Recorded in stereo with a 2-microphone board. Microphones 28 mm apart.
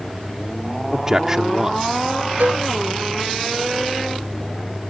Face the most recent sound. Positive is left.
turn(degrees=-80)